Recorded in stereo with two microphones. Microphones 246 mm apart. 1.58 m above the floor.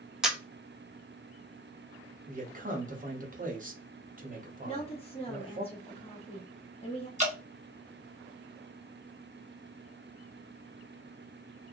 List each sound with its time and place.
0.2 s a camera shutter: centre (ahead or behind), 0.6 m
2.3 s a man speaking: 35° right (ahead or behind), 0.8 m
4.6 s a woman speaking: 25° left (ahead or behind), 1.0 m
7.2 s dripping: 30° right (ahead or behind), 1.1 m